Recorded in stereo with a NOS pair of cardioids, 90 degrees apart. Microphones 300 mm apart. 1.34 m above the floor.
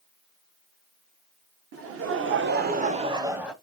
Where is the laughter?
55° right, 1.2 m; by 3.5 s straight ahead, 0.8 m.